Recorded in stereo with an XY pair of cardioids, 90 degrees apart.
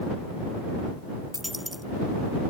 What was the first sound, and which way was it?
A dropped coin, 5° left.